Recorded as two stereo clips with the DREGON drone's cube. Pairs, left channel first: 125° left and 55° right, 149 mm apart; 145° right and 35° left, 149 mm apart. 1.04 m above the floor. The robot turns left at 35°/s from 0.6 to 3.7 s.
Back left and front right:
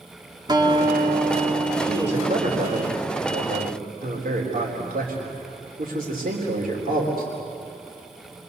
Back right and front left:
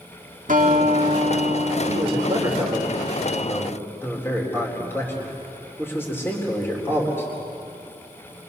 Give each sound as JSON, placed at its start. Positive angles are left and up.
{"t": 0.5, "sound": "a guitar", "azimuth_deg": 5, "distance_m": 1.8}
{"t": 1.9, "sound": "a man speaking", "azimuth_deg": -10, "distance_m": 4.0}